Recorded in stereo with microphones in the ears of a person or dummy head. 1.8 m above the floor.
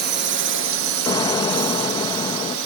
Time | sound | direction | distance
0.0 | a drone | 55° right (ahead or behind) | ?
1.1 | an explosion | 15° left (ahead or behind) | ?